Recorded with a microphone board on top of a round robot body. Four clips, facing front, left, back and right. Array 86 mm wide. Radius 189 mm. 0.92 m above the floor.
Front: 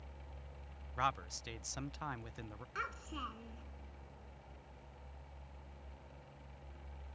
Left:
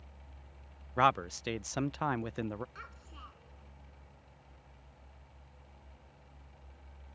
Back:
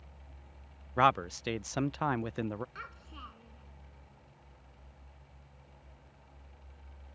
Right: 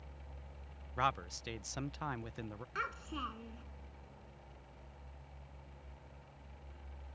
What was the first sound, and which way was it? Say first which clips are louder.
A man speaking: left 8 dB, back 11 dB; 145° left.